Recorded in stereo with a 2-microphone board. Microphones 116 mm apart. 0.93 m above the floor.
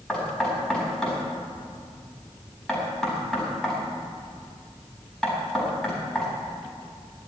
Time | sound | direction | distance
0.1 | knocking | centre (ahead or behind) | 4.5 m